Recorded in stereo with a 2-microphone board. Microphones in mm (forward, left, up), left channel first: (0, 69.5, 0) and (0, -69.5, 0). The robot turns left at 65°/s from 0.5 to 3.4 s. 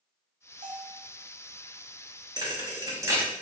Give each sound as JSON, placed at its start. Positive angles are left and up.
{"t": 0.6, "sound": "a bell", "side_deg": -60, "distance_m": 0.8}
{"t": 2.4, "sound": "a thud", "side_deg": -30, "distance_m": 0.9}